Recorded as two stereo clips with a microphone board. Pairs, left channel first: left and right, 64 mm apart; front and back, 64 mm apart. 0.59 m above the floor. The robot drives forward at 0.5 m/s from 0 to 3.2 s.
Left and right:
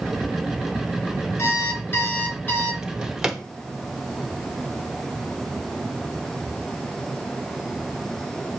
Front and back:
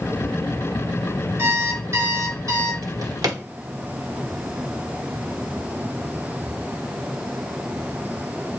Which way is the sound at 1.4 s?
130° left.